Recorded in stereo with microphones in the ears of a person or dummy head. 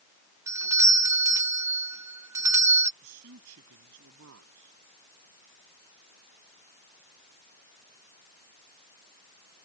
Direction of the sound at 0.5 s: 15° right (ahead or behind).